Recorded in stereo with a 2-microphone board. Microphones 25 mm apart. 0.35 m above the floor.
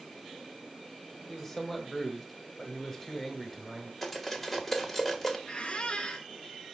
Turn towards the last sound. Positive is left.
turn(degrees=55)  # may be behind; listen again after turning